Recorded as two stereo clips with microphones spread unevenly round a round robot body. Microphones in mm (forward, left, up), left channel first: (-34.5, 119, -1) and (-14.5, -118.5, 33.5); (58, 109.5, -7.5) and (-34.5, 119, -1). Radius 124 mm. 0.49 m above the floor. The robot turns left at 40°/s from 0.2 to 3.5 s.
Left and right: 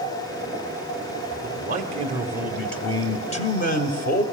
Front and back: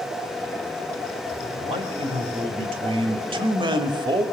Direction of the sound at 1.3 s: 125° right.